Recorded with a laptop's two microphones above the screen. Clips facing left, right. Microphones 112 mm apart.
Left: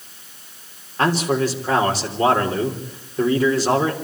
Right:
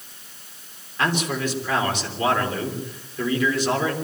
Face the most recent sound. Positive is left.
turn(degrees=35)  # may be behind; listen again after turning